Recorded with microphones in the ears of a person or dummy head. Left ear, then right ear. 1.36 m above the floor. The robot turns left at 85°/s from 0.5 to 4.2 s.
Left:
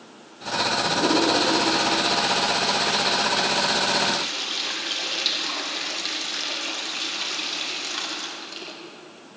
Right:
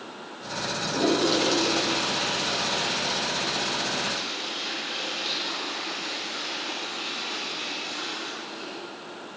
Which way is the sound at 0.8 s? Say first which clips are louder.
Even; 30° right (ahead or behind).